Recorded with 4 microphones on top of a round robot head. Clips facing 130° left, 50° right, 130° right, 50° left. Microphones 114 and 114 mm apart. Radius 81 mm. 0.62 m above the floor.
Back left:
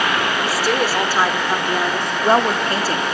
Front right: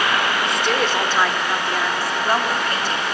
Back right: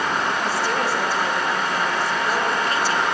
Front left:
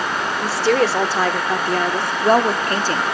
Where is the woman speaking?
45° left, 2 m; by 3.0 s 90° left, 1.2 m.